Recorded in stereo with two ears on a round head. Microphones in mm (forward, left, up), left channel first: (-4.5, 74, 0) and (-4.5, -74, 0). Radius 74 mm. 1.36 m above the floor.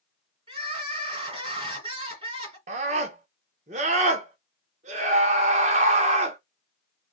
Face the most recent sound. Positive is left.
turn(degrees=-45)  # may be behind; listen again after turning